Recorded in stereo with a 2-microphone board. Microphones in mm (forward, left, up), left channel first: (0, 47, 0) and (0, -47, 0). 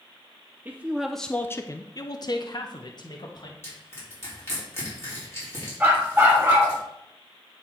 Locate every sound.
0.7 s a man speaking: 20° right (ahead or behind), 0.7 m; by 3.5 s 50° left (ahead or behind), 1.7 m
3.6 s crushing: 25° left (ahead or behind), 4.5 m
5.8 s a dog barking: 15° right (ahead or behind), 3 m